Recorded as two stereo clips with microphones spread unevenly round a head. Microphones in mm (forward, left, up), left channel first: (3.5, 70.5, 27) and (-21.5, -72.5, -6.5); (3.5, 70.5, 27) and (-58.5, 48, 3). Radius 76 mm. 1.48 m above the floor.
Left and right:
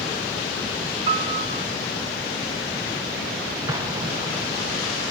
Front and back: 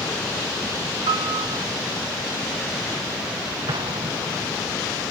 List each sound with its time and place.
1.1 s a piano: 150° right, 1.4 m
3.7 s an explosion: 170° right, 1.4 m